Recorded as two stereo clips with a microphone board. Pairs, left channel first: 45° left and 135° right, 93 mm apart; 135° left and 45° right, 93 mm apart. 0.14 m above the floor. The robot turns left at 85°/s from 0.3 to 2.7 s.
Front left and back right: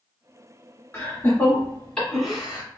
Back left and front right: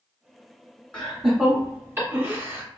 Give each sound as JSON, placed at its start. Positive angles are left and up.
{"t": 0.9, "sound": "laughter", "azimuth_deg": 65, "distance_m": 1.4}